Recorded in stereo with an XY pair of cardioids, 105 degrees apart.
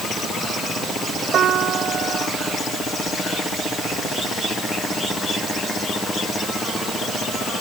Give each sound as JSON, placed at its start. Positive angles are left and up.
{"t": 1.3, "sound": "a piano", "azimuth_deg": -65}